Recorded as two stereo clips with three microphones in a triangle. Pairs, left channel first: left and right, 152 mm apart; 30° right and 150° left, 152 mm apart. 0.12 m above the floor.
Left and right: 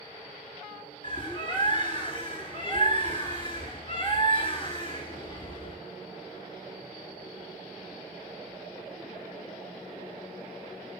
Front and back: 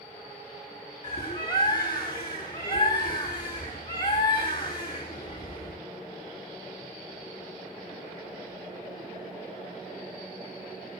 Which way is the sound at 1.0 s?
35° left.